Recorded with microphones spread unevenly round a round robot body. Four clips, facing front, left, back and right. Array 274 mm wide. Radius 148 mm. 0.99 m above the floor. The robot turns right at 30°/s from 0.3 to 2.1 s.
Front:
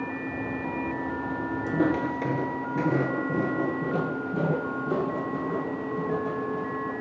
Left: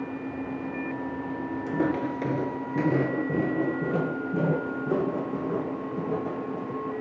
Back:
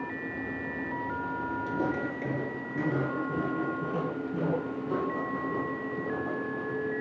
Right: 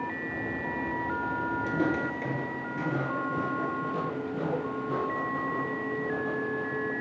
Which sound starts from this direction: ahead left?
Footsteps, at 1.7 s.